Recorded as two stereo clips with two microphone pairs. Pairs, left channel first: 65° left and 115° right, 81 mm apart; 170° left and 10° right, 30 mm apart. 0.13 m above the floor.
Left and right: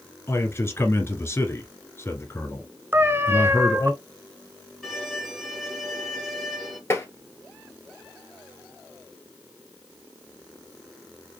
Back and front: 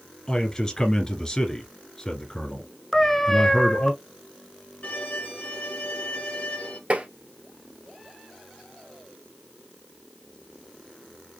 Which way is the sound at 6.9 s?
10° left.